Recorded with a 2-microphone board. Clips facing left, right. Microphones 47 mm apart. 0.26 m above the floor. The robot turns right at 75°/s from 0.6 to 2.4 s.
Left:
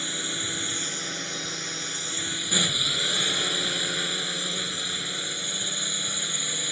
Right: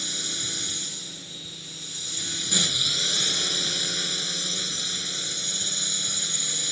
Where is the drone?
25° left; by 6.7 s 160° left.